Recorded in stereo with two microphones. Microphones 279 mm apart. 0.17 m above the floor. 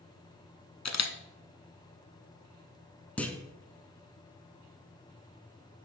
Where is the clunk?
5° left (ahead or behind), 0.8 m.